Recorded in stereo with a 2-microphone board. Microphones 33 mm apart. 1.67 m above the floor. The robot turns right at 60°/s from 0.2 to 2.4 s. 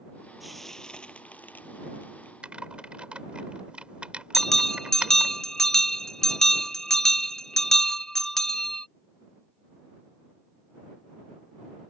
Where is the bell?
15° left (ahead or behind).